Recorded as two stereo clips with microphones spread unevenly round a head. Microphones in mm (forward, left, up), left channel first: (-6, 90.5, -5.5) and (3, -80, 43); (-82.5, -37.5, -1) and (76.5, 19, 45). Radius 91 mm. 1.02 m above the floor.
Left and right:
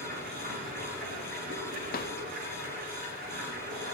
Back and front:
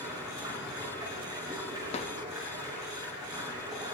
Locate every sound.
0.0 s running water: 50° right, 6.5 m
1.9 s a drawer: 140° left, 0.8 m